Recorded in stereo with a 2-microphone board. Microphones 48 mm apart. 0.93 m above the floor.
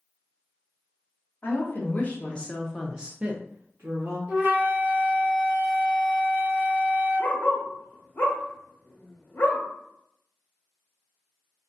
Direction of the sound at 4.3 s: 40° right (ahead or behind).